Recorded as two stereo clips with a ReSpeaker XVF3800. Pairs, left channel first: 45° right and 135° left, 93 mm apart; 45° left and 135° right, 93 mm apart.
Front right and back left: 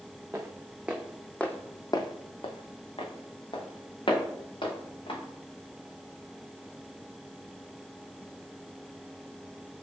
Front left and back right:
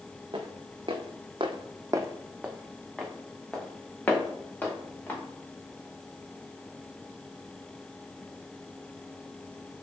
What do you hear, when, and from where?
0.3 s footsteps: 165° right, 0.9 m; by 5.2 s 25° right, 2 m